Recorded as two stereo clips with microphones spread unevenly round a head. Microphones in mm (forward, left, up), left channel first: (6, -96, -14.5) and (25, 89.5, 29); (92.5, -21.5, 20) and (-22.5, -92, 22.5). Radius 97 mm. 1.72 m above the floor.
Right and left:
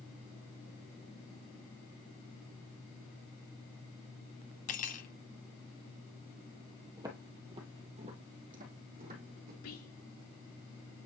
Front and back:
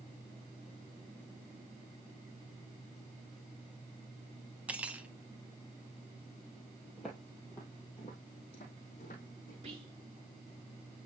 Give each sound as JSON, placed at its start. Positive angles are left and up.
{"t": 4.7, "sound": "cutlery clinking", "azimuth_deg": -80, "distance_m": 0.9}
{"t": 7.0, "sound": "footsteps", "azimuth_deg": 125, "distance_m": 2.0}
{"t": 9.6, "sound": "whispering", "azimuth_deg": -105, "distance_m": 4.0}